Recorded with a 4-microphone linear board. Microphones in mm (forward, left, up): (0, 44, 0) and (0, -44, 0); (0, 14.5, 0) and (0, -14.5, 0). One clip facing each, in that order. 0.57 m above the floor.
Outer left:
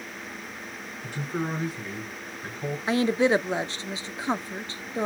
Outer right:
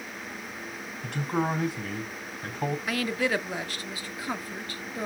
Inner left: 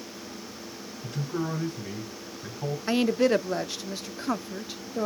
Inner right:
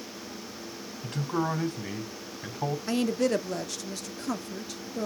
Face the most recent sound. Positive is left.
turn(degrees=25)  # may be behind; listen again after turning